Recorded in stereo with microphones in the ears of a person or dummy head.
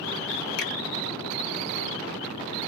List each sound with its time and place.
0.6 s a finger snap: 80° left, 1.7 m